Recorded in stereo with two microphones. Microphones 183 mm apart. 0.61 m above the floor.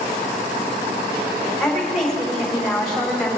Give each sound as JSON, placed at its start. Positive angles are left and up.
{"t": 1.6, "sound": "a woman speaking", "side_deg": 5, "distance_m": 5.5}